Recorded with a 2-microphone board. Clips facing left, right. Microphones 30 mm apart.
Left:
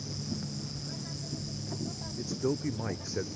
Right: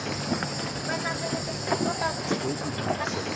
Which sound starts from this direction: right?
An insect, at 0.0 s.